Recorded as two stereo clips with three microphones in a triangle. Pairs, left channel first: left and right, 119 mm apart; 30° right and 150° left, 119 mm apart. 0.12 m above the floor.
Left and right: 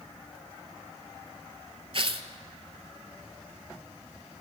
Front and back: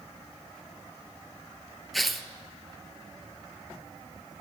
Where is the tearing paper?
120° right, 0.6 m.